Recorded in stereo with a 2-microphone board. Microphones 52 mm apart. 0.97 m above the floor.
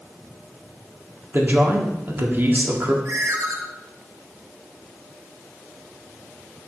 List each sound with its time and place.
1.3 s a man speaking: 40° right (ahead or behind), 1.7 m
3.0 s a ringtone: 85° right, 1.6 m